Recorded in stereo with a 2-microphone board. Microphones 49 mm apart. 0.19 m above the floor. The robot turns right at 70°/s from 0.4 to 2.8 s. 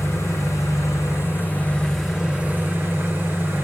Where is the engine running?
65° left, 10 m; by 3.6 s 130° right, 10 m.